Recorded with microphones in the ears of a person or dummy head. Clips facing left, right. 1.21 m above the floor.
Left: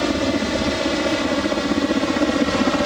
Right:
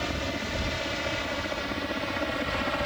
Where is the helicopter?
65° left (ahead or behind); by 2.9 s 60° left (ahead or behind).